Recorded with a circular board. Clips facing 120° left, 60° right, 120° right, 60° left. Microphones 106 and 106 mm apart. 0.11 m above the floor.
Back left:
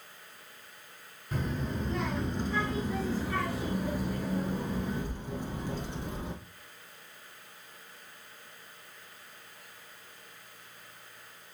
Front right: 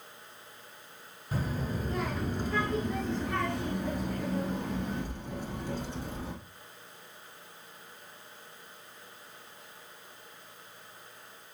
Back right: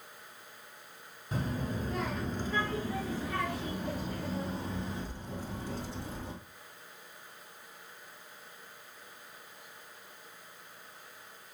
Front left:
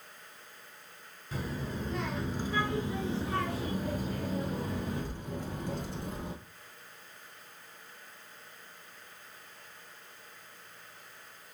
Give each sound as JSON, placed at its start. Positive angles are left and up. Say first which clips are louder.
{"t": 1.3, "sound": "a child speaking", "louder": "even, back right 2 dB", "azimuth_deg": -120, "distance_m": 1.1}